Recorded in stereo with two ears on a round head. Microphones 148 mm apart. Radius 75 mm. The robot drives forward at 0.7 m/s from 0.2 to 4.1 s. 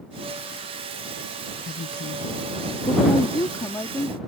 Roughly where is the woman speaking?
Left.